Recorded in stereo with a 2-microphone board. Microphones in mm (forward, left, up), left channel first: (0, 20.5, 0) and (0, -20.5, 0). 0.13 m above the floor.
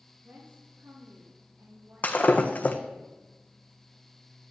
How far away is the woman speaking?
About 5 m.